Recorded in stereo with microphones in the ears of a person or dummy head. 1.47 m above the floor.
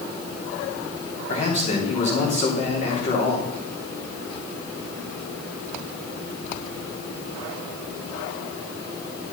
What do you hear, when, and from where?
1.3 s a man speaking: 40° left (ahead or behind), 3 m